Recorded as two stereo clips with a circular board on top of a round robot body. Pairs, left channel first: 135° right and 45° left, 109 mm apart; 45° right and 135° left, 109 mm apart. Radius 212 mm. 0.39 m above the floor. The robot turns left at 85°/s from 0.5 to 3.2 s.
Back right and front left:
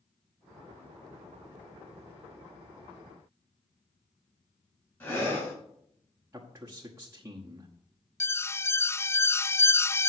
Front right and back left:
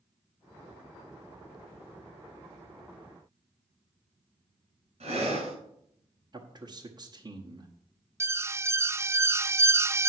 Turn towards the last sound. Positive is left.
turn(degrees=180)